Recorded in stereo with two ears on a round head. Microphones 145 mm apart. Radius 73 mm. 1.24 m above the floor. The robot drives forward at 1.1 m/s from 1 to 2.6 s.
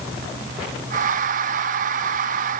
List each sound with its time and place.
Only background noise.